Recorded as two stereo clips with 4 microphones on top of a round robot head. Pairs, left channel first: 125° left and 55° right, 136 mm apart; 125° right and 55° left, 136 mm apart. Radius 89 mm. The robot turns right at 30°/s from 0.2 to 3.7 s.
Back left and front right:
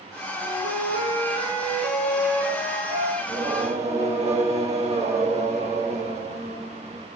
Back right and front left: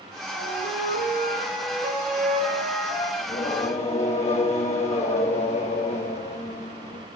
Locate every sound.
0.3 s a flute: 80° right, 7 m; by 3.1 s straight ahead, 7 m
3.2 s singing: 105° right, 2.5 m; by 7.1 s 90° right, 2.5 m